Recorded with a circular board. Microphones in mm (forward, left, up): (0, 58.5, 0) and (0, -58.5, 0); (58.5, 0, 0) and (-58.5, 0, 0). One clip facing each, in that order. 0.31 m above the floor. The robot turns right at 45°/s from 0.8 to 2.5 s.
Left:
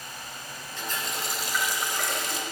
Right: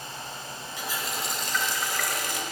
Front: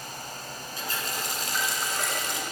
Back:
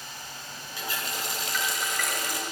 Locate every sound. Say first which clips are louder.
0.8 s a running tap: even, even; 20° right, 1.0 m; by 2.4 s 55° left, 1.0 m